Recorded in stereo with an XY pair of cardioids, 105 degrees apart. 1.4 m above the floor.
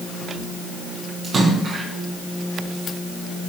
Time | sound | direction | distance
1.2 | a splash | 50° right | 8 m